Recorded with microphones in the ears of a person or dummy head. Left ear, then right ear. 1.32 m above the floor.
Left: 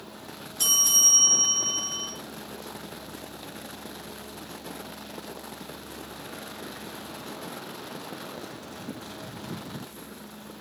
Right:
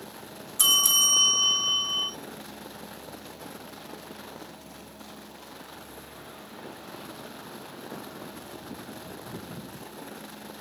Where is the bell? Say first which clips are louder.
Even; 40° right (ahead or behind), 0.7 m.